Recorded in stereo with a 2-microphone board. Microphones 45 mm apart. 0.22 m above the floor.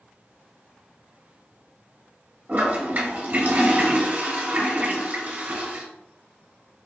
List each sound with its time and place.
2.5 s a toilet flushing: 40° right (ahead or behind), 1.2 m